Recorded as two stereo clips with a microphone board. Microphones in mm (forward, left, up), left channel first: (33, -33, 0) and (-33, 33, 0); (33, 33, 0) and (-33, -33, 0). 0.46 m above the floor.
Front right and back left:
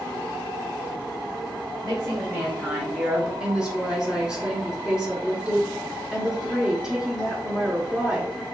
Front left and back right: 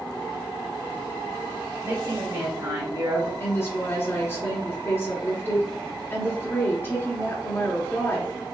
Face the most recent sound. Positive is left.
turn(degrees=65)